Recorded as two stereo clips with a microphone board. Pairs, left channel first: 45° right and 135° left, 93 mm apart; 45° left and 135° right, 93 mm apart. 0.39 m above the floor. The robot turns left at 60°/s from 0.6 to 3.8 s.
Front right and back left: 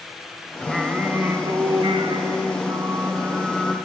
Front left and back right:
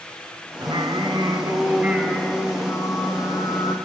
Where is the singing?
130° right, 0.8 m; by 3.8 s 40° left, 0.8 m.